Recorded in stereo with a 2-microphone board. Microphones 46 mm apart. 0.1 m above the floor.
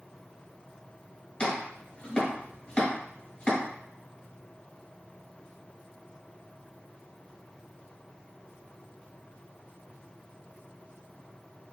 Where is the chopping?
25° left (ahead or behind), 1.3 m.